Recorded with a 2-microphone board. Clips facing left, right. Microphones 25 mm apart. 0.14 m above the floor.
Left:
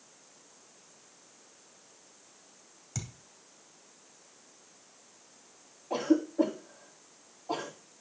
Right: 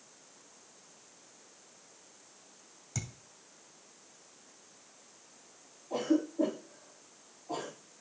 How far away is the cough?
About 6 m.